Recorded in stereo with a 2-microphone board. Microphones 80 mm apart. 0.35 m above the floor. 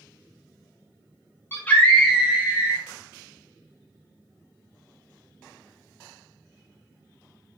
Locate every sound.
1.5 s a scream: 30° left (ahead or behind), 1.2 m; by 2.9 s 35° right (ahead or behind), 1.7 m